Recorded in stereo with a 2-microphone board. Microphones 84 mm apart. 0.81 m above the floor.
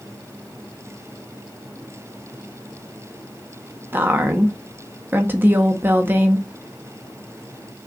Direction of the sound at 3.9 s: 25° right (ahead or behind).